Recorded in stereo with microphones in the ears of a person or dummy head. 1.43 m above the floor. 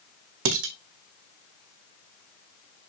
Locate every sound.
0.5 s dishes clattering: 65° right (ahead or behind), 1.3 m